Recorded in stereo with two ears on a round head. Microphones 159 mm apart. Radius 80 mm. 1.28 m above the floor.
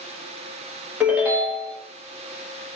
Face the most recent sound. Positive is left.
turn(degrees=-5)  # may be behind; listen again after turning